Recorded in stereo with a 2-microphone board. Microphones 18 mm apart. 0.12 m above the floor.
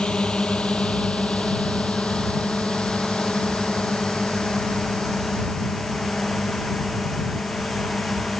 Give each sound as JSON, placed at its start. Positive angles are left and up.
{"t": 0.0, "sound": "a drone", "side_deg": 65}